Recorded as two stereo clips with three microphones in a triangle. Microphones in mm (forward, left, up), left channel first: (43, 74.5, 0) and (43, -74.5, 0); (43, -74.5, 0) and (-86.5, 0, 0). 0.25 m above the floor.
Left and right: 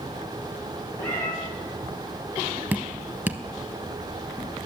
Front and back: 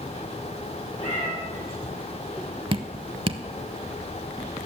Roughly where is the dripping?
Behind.